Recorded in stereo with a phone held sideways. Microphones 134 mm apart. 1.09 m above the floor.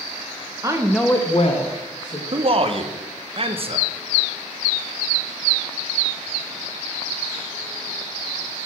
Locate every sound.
0.6 s a woman speaking: 25° right (ahead or behind), 0.8 m; by 2.2 s 70° left (ahead or behind), 1.4 m
2.3 s a man speaking: 45° right (ahead or behind), 0.6 m